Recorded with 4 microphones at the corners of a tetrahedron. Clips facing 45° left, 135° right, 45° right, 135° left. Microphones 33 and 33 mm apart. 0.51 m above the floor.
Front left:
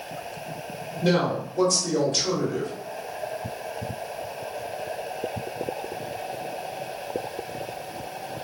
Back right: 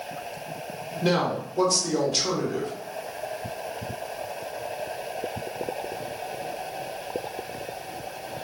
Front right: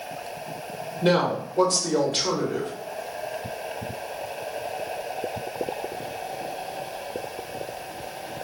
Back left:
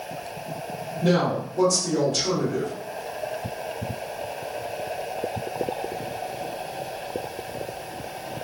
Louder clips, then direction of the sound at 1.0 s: Front left 1 dB, front right 1 dB; 70° right.